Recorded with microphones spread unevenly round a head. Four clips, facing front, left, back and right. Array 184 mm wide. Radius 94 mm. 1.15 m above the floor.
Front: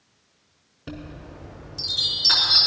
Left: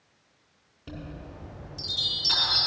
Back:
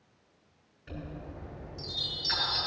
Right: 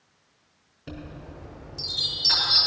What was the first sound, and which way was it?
A chime, 10° right.